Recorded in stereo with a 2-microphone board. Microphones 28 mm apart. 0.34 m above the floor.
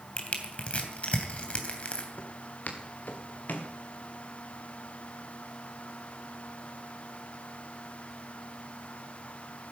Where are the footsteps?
65° left (ahead or behind), 3.5 m; by 3.7 s 85° left, 2.5 m.